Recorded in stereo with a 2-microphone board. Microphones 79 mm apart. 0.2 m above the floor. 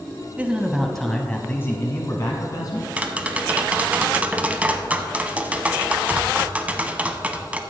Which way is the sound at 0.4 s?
15° right (ahead or behind).